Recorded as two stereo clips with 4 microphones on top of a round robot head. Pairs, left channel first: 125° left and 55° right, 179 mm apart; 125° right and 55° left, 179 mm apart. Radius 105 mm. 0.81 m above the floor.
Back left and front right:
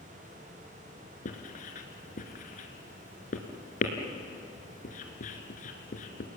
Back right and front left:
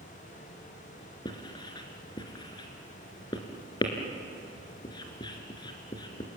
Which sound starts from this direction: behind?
Writing, at 1.2 s.